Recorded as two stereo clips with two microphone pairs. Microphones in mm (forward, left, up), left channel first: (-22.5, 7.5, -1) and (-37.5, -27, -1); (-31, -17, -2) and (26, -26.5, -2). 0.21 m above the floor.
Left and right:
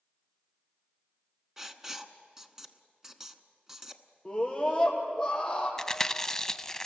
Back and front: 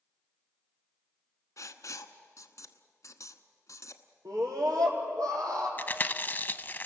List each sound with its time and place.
1.6 s writing: 175° left, 1.0 m
4.2 s a scream: 15° right, 6 m
5.8 s chewing: 140° left, 0.6 m